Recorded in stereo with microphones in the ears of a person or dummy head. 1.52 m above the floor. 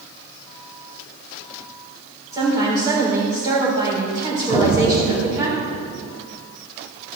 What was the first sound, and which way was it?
A woman speaking, 20° right (ahead or behind).